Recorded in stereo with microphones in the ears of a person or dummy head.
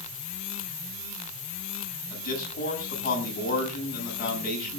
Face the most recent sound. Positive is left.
turn(degrees=50)  # may be behind; listen again after turning